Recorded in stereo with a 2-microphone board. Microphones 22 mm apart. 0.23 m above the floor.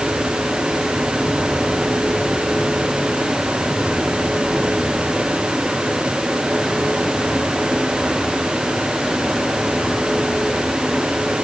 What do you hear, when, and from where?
Only background noise.